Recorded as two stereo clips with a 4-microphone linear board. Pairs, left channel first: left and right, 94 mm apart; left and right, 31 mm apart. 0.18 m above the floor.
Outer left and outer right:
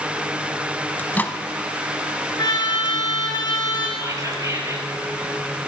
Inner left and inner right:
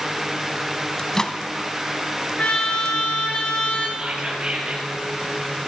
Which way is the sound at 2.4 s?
45° left (ahead or behind).